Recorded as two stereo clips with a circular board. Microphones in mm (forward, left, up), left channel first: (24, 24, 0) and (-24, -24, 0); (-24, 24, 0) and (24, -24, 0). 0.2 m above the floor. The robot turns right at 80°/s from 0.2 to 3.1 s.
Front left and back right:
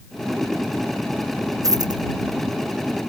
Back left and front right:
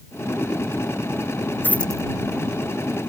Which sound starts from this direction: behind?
A dropped coin, at 1.6 s.